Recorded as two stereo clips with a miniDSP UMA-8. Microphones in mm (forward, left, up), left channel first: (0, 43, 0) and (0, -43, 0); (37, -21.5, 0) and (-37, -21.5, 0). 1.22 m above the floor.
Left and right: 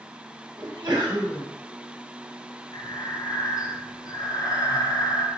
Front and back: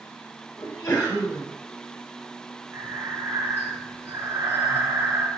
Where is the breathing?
130° left, 1.2 m.